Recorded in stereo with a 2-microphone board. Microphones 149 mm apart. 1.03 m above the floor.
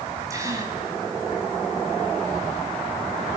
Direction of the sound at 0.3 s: 25° right (ahead or behind).